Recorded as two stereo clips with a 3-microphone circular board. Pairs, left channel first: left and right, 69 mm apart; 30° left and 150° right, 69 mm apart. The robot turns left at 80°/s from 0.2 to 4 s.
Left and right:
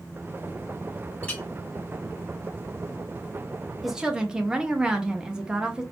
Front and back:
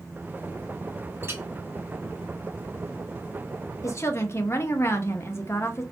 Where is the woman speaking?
Straight ahead, 0.7 m; by 5.8 s 10° right, 0.7 m.